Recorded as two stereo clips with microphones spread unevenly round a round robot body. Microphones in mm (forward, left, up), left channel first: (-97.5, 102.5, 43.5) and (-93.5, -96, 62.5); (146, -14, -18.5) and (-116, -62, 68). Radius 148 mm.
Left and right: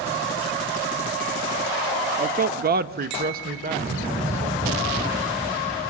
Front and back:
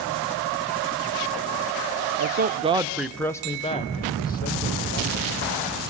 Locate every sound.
2.2 s a man speaking: 125° right, 0.9 m; by 5.6 s 25° right, 2.5 m